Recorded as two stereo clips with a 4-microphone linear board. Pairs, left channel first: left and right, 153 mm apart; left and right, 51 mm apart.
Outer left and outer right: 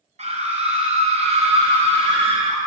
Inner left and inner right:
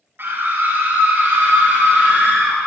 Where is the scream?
50° right (ahead or behind), 2.5 m; by 2.6 s 40° right (ahead or behind), 4.5 m.